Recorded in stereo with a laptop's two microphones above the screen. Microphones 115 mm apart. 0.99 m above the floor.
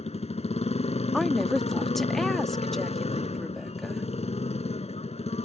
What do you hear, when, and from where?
0.0 s a motorcycle: 70° left (ahead or behind)
1.1 s a woman speaking: centre (ahead or behind)